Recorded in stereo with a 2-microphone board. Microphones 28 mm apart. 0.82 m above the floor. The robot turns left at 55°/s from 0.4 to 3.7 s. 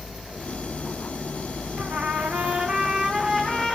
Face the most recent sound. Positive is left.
turn(degrees=170)